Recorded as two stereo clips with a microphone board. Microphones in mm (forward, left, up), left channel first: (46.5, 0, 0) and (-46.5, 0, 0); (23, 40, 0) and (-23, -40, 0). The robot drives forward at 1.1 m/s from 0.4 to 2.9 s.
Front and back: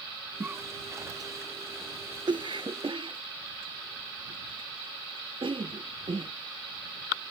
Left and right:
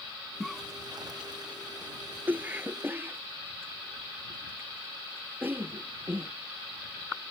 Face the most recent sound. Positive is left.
turn(degrees=175)